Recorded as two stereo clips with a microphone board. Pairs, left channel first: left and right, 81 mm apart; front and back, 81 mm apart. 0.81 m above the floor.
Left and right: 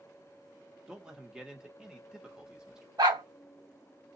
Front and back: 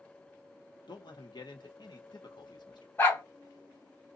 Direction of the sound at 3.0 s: 65° right.